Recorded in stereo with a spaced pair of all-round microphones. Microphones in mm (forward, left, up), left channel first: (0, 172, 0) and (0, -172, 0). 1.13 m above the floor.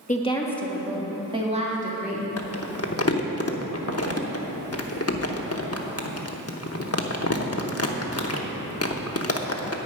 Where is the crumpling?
45° left (ahead or behind), 0.9 m.